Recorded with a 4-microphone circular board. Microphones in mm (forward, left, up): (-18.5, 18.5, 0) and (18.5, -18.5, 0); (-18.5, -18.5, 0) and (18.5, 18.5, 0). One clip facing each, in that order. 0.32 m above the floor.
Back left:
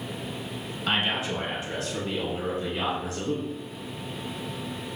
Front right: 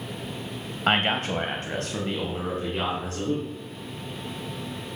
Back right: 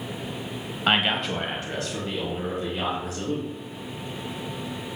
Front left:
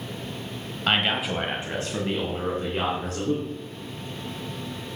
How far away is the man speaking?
About 1.2 m.